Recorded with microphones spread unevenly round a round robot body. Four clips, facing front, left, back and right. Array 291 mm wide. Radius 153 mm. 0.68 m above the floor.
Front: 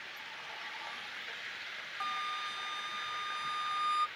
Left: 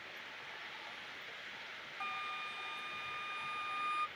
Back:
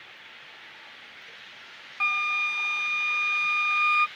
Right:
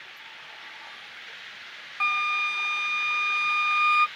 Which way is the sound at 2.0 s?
105° right.